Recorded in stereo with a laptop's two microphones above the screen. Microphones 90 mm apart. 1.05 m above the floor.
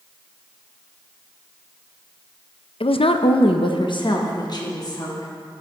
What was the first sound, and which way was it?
A woman speaking, 70° left (ahead or behind).